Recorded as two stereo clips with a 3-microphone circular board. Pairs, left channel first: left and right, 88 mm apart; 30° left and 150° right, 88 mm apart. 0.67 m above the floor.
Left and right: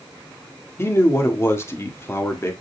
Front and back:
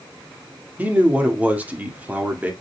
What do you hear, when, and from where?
0.8 s a man speaking: 140° left, 1.5 m